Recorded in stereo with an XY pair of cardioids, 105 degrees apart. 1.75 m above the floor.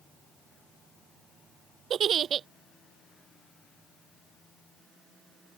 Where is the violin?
No violin in this recording.